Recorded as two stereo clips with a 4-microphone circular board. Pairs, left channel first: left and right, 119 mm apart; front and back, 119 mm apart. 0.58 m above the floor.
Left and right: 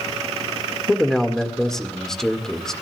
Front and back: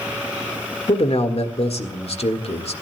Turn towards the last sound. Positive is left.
turn(degrees=5)